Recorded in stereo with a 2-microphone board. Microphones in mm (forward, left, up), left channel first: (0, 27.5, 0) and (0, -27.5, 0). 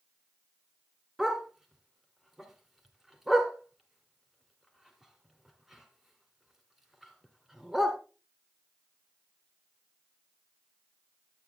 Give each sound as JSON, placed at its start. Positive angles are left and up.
{"t": 1.2, "sound": "a dog barking", "side_deg": -5, "distance_m": 1.6}